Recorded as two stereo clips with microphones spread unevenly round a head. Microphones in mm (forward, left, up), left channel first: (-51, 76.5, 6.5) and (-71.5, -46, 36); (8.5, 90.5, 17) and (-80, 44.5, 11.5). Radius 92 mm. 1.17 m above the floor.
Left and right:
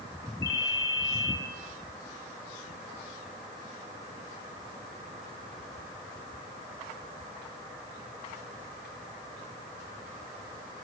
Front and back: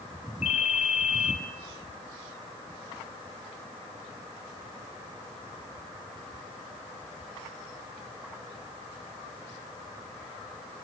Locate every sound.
0.4 s a ringtone: straight ahead, 3 m